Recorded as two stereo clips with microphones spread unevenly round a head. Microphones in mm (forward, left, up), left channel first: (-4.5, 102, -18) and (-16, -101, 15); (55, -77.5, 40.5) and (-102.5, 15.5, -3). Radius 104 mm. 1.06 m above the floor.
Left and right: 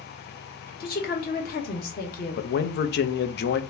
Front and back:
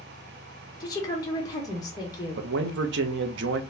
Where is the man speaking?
125° left, 0.5 m.